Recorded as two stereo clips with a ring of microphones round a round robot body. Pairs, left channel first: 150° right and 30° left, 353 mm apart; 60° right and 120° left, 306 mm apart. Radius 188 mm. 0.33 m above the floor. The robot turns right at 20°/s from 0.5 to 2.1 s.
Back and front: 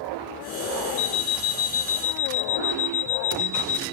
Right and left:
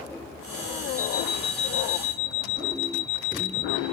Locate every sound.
1.0 s an alarm clock: 130° right, 2.5 m; by 3.8 s 110° right, 2.5 m